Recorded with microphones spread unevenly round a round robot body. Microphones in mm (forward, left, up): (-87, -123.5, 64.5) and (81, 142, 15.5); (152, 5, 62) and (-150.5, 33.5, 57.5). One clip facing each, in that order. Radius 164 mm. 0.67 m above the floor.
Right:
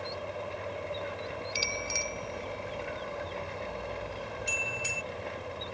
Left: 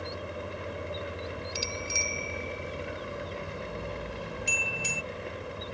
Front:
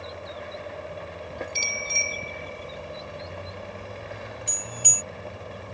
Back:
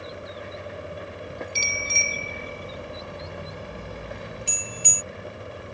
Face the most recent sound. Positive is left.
turn(degrees=105)